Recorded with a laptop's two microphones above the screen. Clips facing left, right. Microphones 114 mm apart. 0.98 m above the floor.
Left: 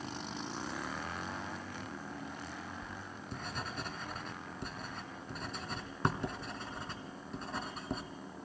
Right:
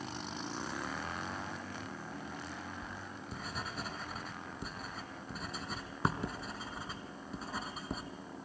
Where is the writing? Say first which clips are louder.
Even; centre (ahead or behind), 1.7 m.